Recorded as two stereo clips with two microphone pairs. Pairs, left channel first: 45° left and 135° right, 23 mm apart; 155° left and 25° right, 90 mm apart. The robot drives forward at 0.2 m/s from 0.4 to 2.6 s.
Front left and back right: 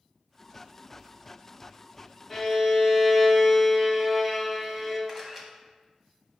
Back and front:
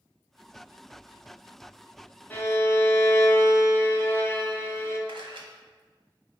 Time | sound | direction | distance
2.3 | a violin | 120° left | 0.5 m
5.1 | a camera shutter | 55° right | 0.8 m